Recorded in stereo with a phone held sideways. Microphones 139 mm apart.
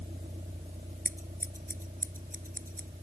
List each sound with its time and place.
0.0 s a vehicle: 50° right (ahead or behind); by 3.0 s 60° right (ahead or behind)
1.1 s scissors: 85° right